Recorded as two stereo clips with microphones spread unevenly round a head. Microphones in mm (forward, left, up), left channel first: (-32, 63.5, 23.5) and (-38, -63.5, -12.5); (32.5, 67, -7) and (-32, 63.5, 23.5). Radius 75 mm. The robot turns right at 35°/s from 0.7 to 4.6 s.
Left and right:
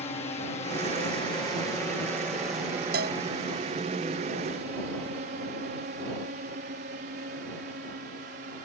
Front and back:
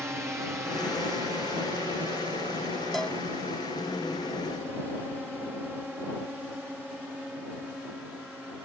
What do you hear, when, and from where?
0.0 s a drone: 120° left; by 8.7 s 90° right
2.9 s a cowbell: 90° right; by 3.2 s 80° right